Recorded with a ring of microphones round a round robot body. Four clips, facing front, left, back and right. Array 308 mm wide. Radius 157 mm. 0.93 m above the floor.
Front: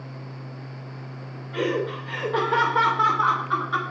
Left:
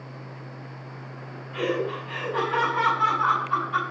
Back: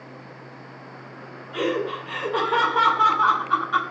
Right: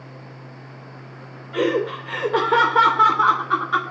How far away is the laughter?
About 3 m.